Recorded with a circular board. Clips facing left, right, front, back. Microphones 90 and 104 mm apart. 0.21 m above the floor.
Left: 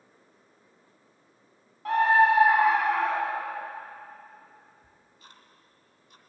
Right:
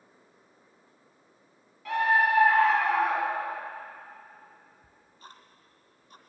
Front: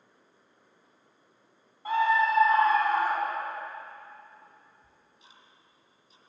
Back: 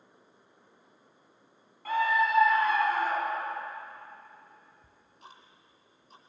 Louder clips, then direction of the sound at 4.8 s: Right 4 dB, back 6 dB; 145° right.